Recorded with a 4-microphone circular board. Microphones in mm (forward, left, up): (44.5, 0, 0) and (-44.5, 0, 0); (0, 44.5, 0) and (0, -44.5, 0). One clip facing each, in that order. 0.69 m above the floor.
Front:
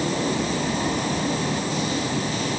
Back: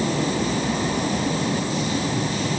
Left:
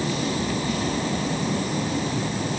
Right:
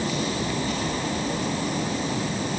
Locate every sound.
Only background noise.